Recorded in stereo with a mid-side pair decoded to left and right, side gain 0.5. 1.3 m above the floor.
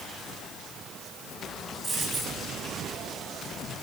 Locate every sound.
1.8 s a dropped coin: 35° right, 8 m